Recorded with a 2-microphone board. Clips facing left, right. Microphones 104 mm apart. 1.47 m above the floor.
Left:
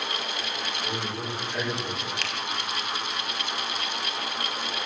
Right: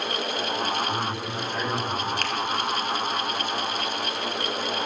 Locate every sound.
0.8 s a man speaking: 75° left (ahead or behind), 4.5 m
2.2 s a finger snap: 45° right (ahead or behind), 0.9 m